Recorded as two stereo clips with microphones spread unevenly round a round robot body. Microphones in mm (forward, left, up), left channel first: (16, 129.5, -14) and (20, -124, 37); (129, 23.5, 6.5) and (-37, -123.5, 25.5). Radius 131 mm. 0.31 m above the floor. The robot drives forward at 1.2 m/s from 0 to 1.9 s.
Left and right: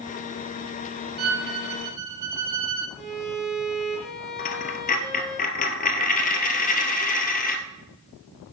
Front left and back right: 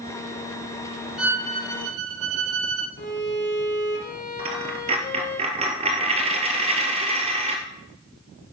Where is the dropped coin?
155° left, 1.2 m.